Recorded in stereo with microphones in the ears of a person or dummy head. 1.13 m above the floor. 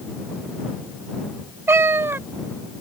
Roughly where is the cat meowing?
Centre.